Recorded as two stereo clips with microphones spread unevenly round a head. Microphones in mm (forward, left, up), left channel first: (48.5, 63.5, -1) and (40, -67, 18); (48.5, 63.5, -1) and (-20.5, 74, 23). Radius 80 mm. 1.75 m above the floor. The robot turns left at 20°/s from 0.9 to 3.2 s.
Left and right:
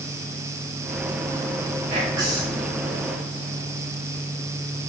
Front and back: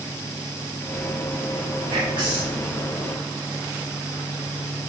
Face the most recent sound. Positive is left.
turn(degrees=175)